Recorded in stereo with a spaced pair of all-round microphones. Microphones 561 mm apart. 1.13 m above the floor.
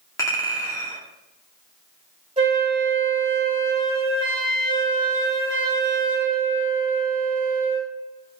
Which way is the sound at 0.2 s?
5° left (ahead or behind).